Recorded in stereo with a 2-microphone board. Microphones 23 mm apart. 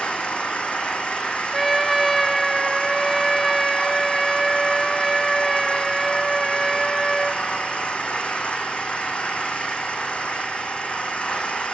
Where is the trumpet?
Centre (ahead or behind), 1.1 m.